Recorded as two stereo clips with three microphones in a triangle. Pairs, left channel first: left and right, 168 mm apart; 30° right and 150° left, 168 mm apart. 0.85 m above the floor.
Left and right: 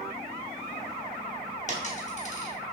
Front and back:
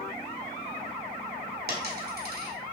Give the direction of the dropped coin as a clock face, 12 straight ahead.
8 o'clock.